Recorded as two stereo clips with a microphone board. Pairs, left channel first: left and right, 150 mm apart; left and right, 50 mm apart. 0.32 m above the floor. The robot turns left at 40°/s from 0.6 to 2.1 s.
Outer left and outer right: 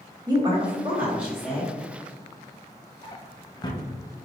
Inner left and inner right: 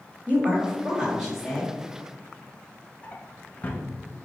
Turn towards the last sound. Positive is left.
turn(degrees=25)  # may be behind; listen again after turning